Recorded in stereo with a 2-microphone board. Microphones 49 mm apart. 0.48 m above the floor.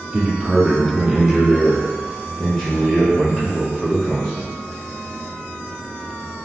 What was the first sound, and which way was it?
A man speaking, 25° right (ahead or behind).